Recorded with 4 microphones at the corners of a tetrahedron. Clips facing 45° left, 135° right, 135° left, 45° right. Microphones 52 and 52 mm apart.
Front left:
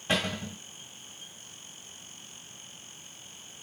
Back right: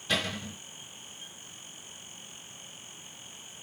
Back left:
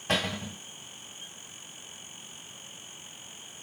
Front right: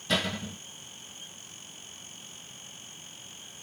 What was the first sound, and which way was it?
A cupboard door, 100° left.